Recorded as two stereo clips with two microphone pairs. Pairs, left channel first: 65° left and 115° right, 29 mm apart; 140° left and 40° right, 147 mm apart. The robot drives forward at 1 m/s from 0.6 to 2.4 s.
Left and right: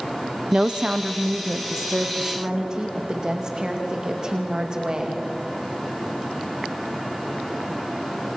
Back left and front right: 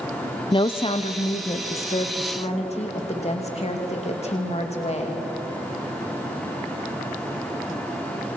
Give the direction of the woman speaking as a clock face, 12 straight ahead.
6 o'clock.